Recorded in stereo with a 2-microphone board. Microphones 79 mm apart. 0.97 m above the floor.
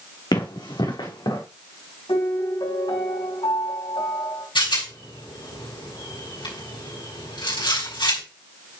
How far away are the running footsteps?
About 3.5 m.